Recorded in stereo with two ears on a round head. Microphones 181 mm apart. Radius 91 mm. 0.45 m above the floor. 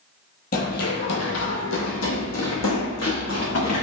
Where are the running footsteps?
45° left (ahead or behind), 0.7 m; by 3.8 s 75° left (ahead or behind), 2 m.